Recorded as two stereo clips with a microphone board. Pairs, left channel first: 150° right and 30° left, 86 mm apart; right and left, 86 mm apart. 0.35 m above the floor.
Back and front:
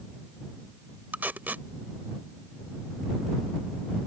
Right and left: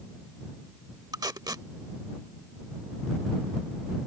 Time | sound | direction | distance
1.1 | tape being pulled | 90° left | ?